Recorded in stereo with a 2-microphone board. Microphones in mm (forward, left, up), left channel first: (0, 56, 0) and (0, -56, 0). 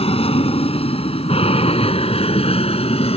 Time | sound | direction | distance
0.0 | an aircraft | 65° left (ahead or behind) | ?